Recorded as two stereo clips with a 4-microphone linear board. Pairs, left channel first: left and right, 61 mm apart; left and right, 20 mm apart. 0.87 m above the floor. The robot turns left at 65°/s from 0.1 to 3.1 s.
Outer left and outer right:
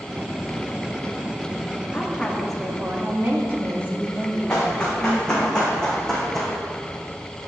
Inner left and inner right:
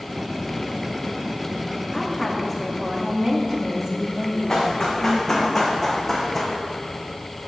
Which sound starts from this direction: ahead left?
A woman speaking, at 1.9 s.